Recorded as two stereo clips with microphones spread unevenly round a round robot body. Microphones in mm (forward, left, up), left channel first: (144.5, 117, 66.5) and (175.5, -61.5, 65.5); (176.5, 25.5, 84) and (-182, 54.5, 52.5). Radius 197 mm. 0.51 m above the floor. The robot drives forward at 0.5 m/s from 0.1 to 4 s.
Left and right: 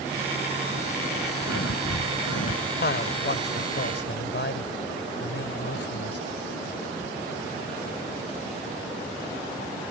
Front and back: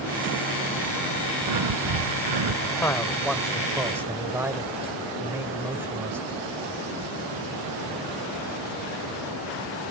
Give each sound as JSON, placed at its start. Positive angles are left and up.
{"t": 1.4, "sound": "breathing", "azimuth_deg": 140}
{"t": 2.8, "sound": "a man speaking", "azimuth_deg": 80}